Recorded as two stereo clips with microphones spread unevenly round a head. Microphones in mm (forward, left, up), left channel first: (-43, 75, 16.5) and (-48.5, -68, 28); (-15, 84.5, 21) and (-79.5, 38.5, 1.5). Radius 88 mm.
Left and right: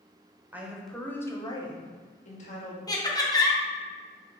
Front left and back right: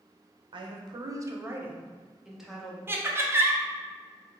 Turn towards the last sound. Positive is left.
turn(degrees=155)